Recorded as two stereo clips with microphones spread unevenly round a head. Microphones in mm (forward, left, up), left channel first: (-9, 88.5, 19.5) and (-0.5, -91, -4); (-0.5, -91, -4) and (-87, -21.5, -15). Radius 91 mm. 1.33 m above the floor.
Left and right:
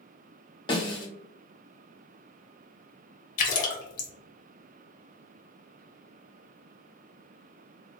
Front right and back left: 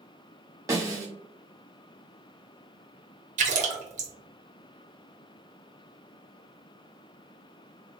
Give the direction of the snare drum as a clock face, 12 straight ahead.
9 o'clock.